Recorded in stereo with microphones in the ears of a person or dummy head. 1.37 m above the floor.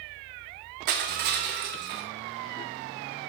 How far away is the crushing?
About 0.6 m.